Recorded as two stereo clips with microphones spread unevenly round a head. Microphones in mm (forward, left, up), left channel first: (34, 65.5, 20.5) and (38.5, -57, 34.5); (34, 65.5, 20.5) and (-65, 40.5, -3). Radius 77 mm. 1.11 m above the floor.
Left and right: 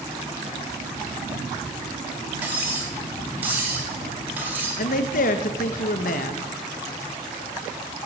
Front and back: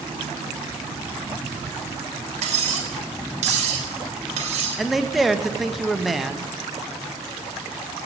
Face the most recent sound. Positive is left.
turn(degrees=105)